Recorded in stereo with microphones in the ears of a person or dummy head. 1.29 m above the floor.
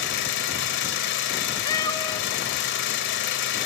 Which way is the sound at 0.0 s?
65° left (ahead or behind).